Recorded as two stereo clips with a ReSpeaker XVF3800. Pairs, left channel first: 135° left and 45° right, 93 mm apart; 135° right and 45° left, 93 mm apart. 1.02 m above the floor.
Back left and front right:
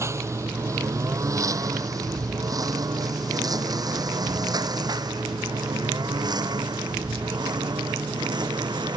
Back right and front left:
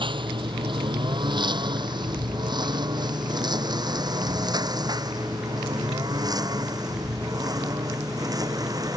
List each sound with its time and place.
0.0 s a lawn mower: 15° left; by 9.0 s 5° right